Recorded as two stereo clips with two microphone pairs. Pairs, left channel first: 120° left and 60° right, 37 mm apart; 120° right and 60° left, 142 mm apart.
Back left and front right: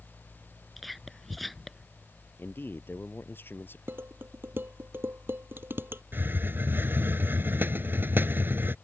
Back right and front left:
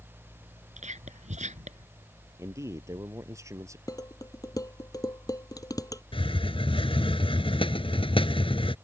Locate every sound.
0.8 s whispering: 30° left
2.4 s a man speaking: 125° left
3.9 s dishes clattering: 55° right
6.1 s a hiss: 75° right